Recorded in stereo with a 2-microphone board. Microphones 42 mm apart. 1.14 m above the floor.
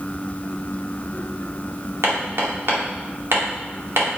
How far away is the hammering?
About 2 m.